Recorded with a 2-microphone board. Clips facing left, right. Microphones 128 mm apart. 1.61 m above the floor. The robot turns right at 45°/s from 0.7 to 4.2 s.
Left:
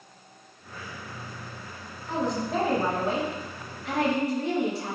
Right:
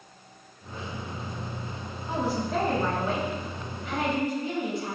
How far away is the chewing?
No chewing in this recording.